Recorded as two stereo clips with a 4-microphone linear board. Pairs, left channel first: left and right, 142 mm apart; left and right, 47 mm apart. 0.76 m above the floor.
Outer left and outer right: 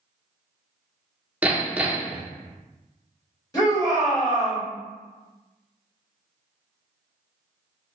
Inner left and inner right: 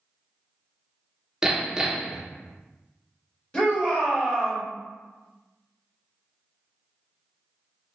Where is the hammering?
10° right (ahead or behind), 0.5 m.